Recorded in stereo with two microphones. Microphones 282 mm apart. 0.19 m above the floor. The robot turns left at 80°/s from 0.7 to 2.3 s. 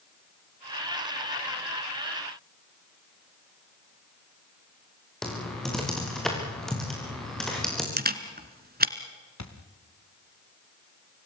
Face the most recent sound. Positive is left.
turn(degrees=70)  # may be behind; listen again after turning